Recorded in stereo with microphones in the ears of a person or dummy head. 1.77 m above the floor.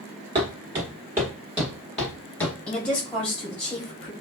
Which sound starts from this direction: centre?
A woman speaking, at 2.7 s.